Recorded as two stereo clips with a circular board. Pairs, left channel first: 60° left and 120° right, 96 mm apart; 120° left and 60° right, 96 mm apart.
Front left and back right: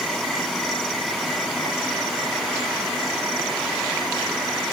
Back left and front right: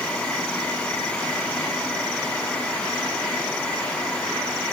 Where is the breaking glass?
No breaking glass in this recording.